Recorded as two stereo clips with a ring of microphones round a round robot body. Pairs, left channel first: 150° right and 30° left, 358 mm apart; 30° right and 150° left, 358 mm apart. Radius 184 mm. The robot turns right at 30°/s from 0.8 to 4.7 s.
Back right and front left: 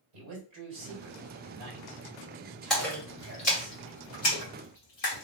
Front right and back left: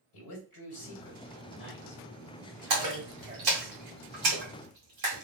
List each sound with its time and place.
0.1 s a man speaking: 15° left, 2.5 m; by 3.7 s 105° left, 2.5 m
2.7 s a splash: 120° left, 2 m; by 5.2 s straight behind, 2 m